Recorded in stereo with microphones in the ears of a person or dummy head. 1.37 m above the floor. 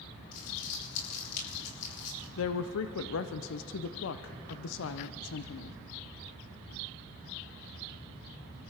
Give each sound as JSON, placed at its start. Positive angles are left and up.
{"t": 0.3, "sound": "crumpling", "side_deg": 50, "distance_m": 6.5}
{"t": 2.4, "sound": "a woman speaking", "side_deg": 75, "distance_m": 0.6}